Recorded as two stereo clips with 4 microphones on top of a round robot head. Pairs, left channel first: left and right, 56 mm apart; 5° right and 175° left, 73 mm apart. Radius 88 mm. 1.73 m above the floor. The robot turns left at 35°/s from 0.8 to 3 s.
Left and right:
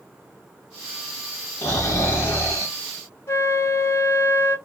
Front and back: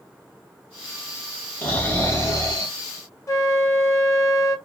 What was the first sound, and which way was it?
Snoring, 45° left.